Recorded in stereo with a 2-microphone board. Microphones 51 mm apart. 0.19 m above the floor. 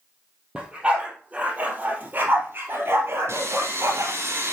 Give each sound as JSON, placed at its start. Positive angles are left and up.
{"t": 0.6, "sound": "a dog barking", "side_deg": -20, "distance_m": 2.5}
{"t": 3.3, "sound": "sawing", "side_deg": -55, "distance_m": 3.0}